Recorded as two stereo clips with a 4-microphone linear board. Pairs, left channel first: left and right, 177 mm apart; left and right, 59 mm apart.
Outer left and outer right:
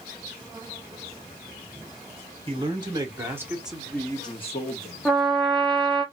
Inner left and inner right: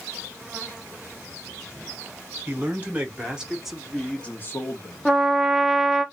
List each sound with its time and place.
2.5 s a man speaking: 30° right (ahead or behind), 1.4 m; by 5.2 s 65° left (ahead or behind), 0.9 m
5.0 s a trumpet: 5° left (ahead or behind), 0.6 m